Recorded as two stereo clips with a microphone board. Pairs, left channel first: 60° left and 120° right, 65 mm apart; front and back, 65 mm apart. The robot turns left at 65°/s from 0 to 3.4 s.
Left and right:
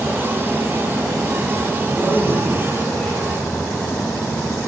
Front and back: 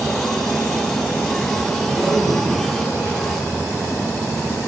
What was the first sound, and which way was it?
A man speaking, 135° right.